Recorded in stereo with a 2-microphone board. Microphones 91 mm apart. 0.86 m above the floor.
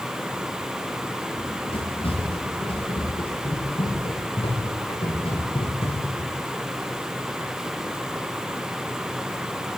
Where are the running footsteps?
75° left (ahead or behind), 9 m; by 6.3 s 80° left, 11 m.